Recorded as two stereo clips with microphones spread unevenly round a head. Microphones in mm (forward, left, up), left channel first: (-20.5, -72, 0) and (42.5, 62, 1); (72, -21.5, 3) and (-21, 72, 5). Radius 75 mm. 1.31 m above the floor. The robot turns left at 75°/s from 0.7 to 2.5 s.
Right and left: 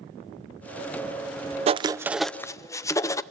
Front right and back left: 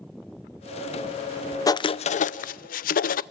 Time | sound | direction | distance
1.7 | writing | 20° left | 0.5 m